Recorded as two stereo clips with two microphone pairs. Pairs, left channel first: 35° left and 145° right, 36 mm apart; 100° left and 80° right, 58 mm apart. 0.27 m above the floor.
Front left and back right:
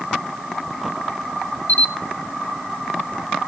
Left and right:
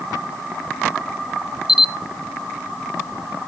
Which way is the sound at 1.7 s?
Straight ahead.